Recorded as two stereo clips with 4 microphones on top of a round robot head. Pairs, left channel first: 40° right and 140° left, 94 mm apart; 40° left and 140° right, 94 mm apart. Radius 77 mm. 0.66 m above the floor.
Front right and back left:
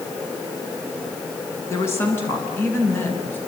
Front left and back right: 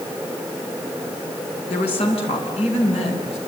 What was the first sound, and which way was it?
A woman speaking, 20° left.